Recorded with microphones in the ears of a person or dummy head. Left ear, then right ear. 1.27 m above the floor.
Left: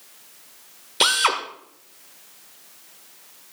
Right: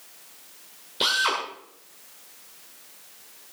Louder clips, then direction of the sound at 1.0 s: Left 4 dB; 50° left (ahead or behind).